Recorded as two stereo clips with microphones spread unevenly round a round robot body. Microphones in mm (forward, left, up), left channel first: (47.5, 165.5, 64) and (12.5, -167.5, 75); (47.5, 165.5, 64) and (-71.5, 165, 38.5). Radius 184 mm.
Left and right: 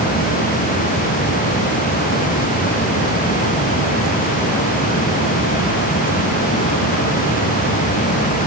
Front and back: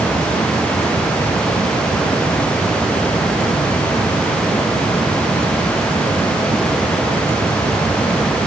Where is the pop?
No pop in this recording.